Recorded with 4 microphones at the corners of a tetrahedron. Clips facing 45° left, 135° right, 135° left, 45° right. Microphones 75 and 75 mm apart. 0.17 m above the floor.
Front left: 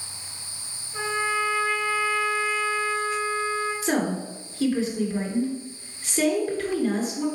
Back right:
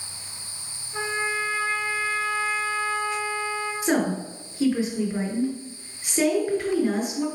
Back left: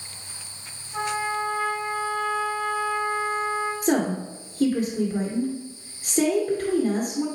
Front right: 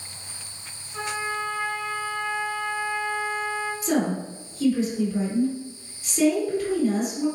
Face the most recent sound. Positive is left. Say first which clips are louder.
# back right 5 dB, even
turn(degrees=155)